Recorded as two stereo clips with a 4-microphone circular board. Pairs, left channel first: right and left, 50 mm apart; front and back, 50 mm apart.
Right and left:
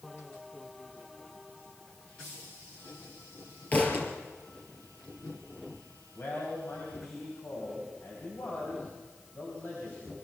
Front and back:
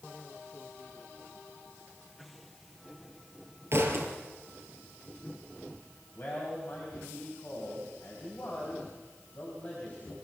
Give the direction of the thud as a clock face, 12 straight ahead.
5 o'clock.